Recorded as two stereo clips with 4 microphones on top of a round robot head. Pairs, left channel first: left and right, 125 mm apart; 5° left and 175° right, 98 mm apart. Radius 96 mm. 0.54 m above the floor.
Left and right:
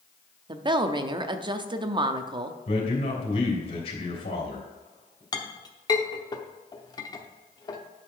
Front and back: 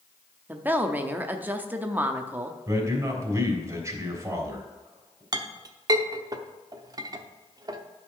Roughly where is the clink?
Behind left.